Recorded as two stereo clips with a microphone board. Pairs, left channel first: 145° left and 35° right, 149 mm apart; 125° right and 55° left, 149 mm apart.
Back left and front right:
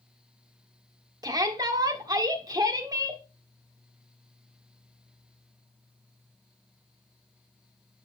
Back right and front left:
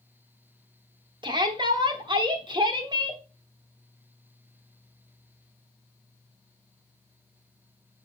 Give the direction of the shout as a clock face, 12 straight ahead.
11 o'clock.